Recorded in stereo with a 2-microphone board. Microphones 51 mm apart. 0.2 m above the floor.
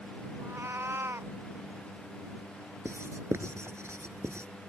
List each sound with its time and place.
0.4 s a cat meowing: 55° right (ahead or behind)
2.9 s writing: 65° right (ahead or behind)